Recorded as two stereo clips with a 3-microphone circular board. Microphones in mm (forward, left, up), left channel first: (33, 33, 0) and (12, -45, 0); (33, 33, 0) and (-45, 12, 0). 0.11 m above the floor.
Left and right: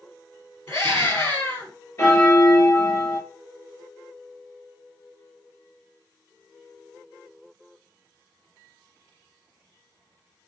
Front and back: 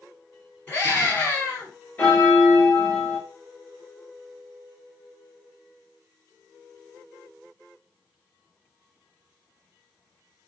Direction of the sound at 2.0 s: 65° left.